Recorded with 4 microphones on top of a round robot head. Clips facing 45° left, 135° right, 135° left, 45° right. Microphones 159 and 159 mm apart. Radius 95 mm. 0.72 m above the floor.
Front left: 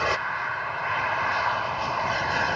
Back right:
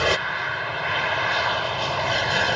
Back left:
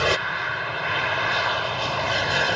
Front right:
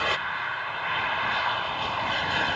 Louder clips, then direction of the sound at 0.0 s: Back right 4 dB, back left 6 dB; 170° left.